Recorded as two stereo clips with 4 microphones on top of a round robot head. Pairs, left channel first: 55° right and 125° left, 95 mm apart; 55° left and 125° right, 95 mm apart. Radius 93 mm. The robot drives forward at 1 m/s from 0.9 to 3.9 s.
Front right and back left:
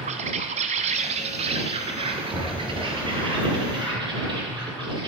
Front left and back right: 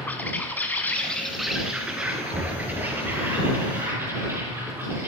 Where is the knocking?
160° right, 6 m; by 3.0 s 165° right, 6.5 m.